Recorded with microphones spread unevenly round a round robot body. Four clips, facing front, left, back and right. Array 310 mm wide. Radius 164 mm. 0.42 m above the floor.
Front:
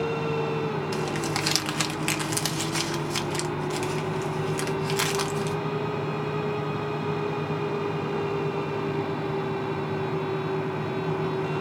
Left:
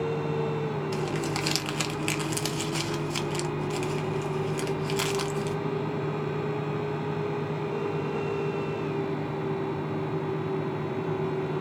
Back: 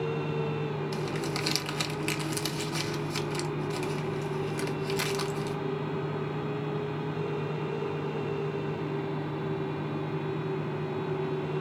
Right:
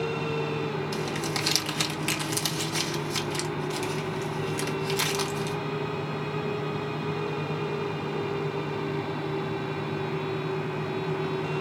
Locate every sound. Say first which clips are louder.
0.9 s crumpling: left 1 dB, front 4 dB; 25° left, 0.8 m